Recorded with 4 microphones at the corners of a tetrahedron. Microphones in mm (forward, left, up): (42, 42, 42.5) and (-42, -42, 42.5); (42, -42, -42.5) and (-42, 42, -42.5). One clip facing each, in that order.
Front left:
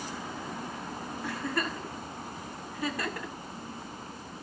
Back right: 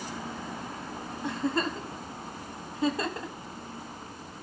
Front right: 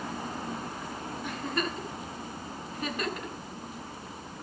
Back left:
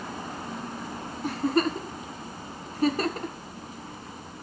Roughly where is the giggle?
Behind.